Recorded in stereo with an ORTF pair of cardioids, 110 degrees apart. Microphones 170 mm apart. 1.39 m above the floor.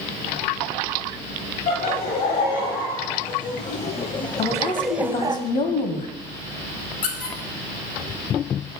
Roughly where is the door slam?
No door slam in this recording.